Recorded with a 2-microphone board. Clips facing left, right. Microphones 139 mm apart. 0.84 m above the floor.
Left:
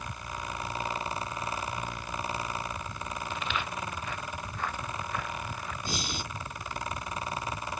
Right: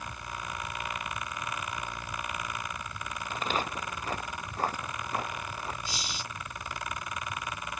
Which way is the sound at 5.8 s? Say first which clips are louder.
Left 4 dB; 50° left (ahead or behind).